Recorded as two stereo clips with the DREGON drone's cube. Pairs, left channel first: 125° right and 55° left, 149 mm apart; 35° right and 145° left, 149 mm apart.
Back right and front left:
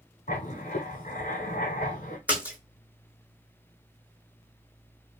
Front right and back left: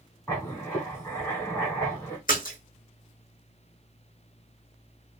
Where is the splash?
25° right, 1.2 m.